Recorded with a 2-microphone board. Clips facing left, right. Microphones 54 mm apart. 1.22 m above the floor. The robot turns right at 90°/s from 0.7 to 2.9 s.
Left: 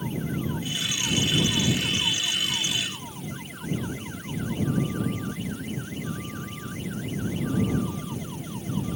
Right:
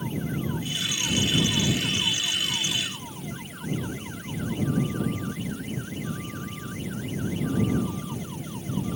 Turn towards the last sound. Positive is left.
No sound to turn to.